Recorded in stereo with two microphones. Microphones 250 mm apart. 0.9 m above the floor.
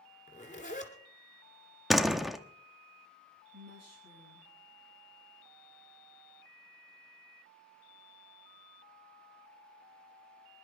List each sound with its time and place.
0.3 s a zipper: 30° left (ahead or behind), 2 m
1.9 s a door slam: centre (ahead or behind), 0.7 m
3.5 s a woman speaking: 85° right, 6.5 m